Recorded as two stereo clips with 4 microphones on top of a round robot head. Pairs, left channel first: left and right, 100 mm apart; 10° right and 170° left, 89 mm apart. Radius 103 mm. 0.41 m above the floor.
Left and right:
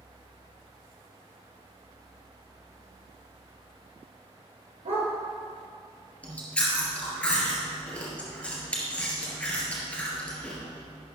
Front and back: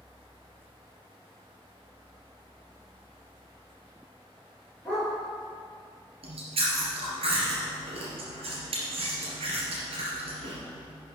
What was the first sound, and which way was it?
A dog barking, 95° right.